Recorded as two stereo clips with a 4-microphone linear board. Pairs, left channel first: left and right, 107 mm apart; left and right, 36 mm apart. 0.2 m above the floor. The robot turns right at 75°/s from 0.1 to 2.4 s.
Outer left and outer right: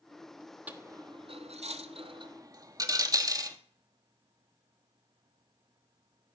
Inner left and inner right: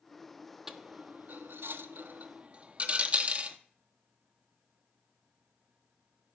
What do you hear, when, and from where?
0.7 s a dropped coin: 15° right (ahead or behind), 0.9 m; by 3.6 s 35° right (ahead or behind), 0.9 m